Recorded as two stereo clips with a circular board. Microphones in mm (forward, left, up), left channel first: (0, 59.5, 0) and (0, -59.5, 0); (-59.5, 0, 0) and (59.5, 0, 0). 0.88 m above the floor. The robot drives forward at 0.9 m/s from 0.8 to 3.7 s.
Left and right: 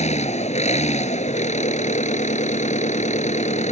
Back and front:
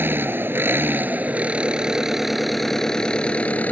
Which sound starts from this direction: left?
An engine running, at 0.0 s.